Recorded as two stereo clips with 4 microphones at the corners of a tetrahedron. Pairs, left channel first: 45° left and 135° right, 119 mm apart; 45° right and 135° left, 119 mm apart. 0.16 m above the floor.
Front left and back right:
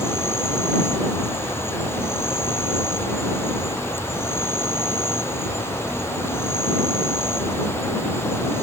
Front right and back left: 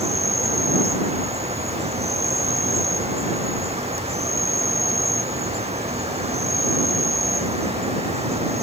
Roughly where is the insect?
Behind left.